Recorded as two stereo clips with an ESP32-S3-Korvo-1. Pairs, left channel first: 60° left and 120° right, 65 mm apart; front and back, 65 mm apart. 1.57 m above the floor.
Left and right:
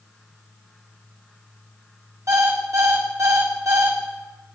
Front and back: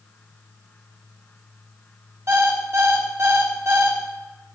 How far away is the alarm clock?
About 1.7 m.